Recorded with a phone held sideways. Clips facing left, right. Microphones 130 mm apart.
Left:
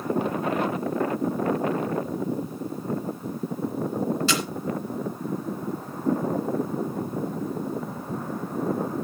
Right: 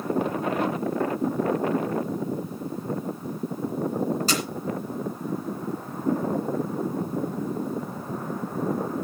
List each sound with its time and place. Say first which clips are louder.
4.3 s a camera shutter: even; 40° right (ahead or behind), 2.5 m